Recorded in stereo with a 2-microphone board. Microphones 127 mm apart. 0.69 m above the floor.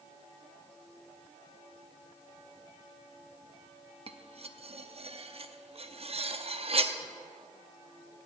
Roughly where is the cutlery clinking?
Right.